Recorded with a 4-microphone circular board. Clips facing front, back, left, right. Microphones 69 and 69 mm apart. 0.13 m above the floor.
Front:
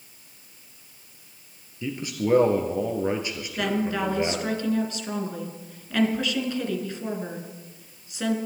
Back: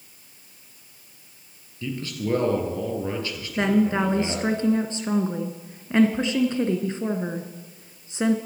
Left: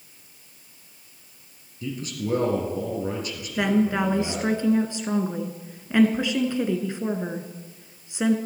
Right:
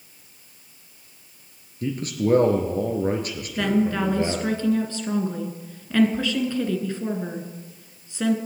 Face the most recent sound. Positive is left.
turn(degrees=150)